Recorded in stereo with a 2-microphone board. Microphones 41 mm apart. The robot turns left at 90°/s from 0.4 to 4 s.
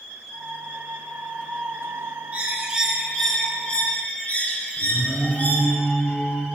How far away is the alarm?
About 3.5 m.